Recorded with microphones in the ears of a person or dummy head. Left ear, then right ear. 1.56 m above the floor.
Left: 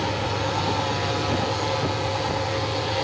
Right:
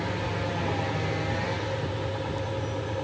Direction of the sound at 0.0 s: 45° left (ahead or behind).